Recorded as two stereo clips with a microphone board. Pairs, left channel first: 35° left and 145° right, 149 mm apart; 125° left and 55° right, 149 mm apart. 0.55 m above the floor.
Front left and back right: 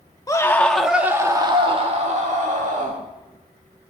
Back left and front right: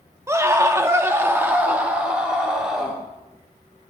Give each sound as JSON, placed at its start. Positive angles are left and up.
{"t": 0.3, "sound": "a scream", "azimuth_deg": -5, "distance_m": 0.8}